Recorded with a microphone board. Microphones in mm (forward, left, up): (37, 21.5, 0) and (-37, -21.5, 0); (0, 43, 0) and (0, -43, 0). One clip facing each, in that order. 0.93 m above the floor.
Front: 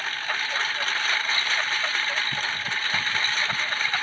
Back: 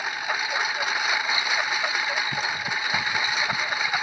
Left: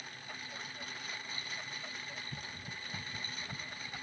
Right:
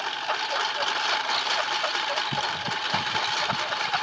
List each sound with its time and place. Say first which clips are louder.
0.0 s a lawn mower: back 2 dB, right 20 dB; 75° right